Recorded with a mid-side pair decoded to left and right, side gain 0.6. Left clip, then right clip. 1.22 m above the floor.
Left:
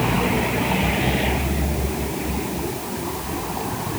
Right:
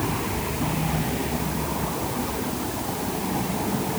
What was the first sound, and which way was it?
Only background noise.